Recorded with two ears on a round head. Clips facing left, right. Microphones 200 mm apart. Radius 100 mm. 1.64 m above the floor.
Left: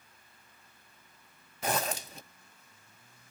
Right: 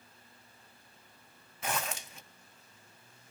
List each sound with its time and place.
1.6 s a zipper: 30° left (ahead or behind), 0.5 m